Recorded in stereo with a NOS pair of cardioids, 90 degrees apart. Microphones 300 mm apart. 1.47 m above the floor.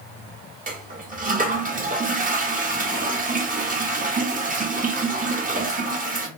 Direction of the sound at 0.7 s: 25° right.